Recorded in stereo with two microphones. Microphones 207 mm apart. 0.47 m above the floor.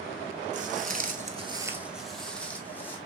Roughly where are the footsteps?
Right.